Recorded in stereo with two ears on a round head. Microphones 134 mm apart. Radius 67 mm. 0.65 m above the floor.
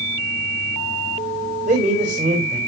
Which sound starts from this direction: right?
A man speaking, at 1.7 s.